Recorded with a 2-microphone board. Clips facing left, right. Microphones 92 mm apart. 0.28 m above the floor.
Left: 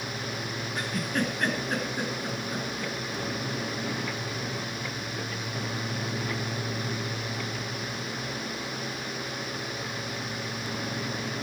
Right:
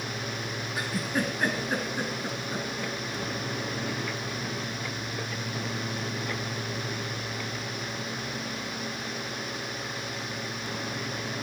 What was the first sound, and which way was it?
A giggle, 10° right (ahead or behind).